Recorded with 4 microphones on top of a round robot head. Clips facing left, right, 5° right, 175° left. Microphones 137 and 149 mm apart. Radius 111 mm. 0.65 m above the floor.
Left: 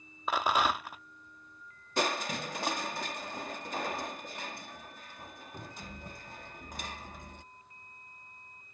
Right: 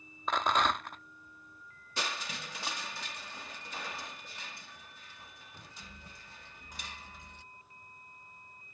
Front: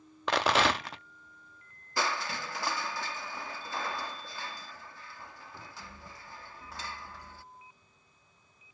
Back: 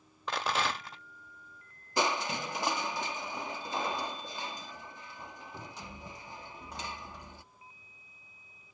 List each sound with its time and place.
0.3 s a rattle: 5° left
2.0 s crushing: 105° left